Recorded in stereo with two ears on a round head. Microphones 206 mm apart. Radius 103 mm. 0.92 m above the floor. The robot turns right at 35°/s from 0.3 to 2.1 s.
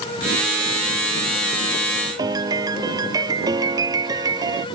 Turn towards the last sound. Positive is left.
turn(degrees=-15)  # may be behind; listen again after turning